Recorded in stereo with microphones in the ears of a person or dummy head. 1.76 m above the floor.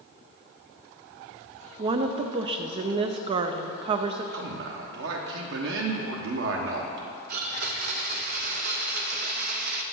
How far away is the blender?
About 0.6 m.